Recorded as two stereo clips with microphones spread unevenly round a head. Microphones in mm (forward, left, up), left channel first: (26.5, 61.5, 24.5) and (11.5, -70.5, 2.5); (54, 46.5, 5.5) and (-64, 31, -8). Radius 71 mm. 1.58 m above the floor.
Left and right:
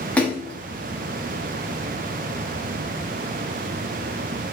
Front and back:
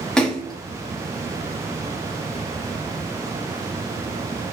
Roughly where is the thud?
I don't hear a thud.